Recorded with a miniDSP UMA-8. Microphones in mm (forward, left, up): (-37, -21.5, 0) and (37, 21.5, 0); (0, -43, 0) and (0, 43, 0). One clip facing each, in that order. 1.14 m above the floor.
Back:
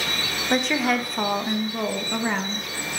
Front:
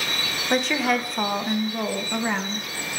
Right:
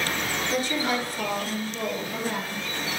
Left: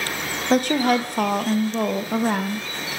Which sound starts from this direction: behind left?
A woman speaking, at 0.5 s.